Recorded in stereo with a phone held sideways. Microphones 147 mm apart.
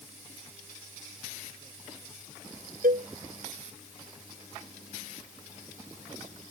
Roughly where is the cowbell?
Right.